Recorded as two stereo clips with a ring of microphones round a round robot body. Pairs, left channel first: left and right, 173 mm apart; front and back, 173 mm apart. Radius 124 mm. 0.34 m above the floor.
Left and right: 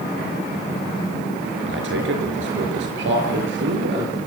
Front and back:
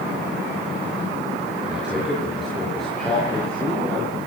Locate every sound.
1.7 s a man speaking: 95° right, 5.5 m; by 4.2 s 85° right, 6.5 m